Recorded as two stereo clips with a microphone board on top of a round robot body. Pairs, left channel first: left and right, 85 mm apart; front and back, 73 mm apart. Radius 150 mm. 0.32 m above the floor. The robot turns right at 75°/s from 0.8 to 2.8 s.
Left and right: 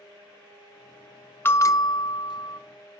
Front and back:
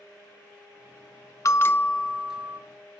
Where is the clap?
No clap in this recording.